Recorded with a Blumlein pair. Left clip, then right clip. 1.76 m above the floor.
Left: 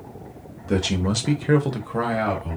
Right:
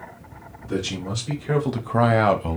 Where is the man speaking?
65° left, 0.8 m; by 2.6 s 40° right, 0.8 m.